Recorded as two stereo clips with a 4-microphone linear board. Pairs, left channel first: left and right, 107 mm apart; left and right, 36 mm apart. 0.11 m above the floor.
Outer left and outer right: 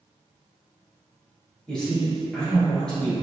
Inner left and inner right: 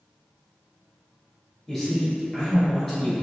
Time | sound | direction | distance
1.7 | a man speaking | 10° left (ahead or behind) | 1.8 m